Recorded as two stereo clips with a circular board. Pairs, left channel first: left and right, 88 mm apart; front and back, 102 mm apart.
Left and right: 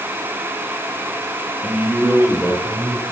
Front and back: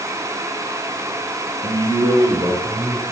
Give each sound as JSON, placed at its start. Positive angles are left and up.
{"t": 1.6, "sound": "a man speaking", "azimuth_deg": -165, "distance_m": 2.0}